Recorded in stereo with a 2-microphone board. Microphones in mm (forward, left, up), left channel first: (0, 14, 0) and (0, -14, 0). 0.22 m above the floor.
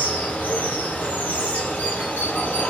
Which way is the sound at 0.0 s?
75° left (ahead or behind).